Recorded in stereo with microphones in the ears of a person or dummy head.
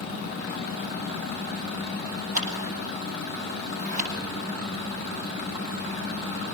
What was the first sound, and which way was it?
Scissors, 45° right (ahead or behind).